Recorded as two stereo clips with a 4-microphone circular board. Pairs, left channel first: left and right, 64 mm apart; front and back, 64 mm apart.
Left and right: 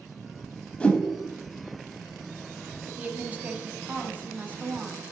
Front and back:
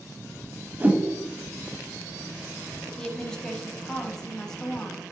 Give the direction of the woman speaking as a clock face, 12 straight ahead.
2 o'clock.